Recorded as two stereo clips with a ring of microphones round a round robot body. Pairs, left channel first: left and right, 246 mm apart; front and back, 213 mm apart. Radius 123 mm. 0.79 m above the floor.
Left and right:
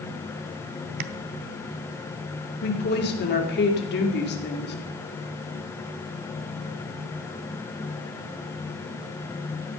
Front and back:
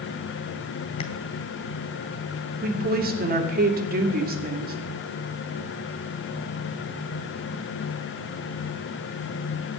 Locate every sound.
1.0 s tapping: 70° right, 0.8 m
2.6 s a woman speaking: 135° left, 2.5 m